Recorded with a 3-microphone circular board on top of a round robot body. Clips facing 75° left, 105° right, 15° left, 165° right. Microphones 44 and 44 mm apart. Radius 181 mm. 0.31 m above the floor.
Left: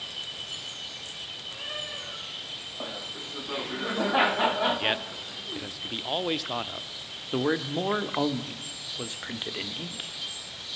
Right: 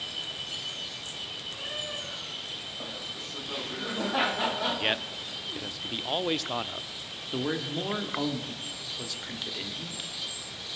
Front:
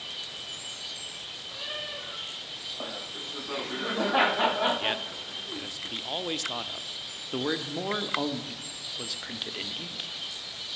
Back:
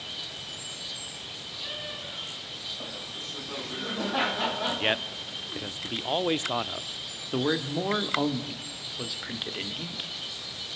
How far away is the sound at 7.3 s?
About 1.7 m.